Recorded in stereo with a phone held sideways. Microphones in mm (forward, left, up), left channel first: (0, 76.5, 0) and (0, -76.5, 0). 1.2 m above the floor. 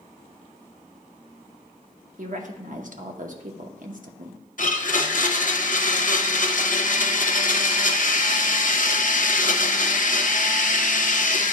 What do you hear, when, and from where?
2.2 s a woman speaking: 60° right (ahead or behind), 0.8 m
4.6 s a blender: 60° left (ahead or behind), 0.7 m